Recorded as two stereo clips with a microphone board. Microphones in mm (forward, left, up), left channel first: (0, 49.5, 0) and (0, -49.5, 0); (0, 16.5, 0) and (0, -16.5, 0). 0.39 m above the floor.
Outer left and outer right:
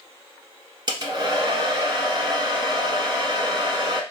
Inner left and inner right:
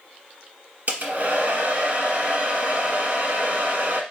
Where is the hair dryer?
50° right (ahead or behind), 1.2 m.